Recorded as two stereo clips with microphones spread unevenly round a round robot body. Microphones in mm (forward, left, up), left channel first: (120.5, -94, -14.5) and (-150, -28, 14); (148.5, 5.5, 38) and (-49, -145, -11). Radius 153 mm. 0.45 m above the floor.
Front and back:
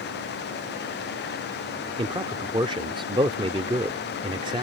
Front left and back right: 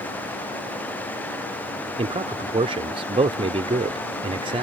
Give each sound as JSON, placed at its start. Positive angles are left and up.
{"t": 2.0, "sound": "a man speaking", "azimuth_deg": -125}